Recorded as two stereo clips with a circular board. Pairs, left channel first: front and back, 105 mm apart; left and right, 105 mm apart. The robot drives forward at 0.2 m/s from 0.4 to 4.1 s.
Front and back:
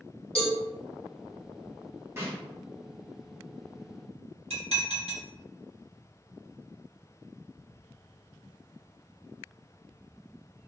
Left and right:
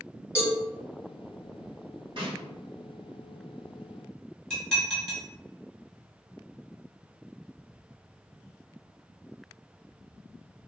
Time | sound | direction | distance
0.3 | a cowbell | 15° right | 1.4 m
2.2 | a snare drum | 115° right | 1.4 m
4.5 | dishes clattering | 175° left | 1.4 m